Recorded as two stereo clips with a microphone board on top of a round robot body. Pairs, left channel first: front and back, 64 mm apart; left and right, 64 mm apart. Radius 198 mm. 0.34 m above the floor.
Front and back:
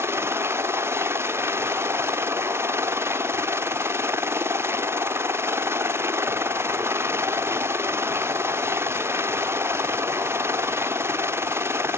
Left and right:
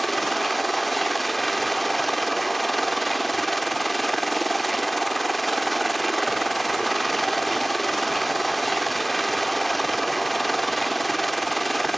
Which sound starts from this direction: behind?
A helicopter, at 0.0 s.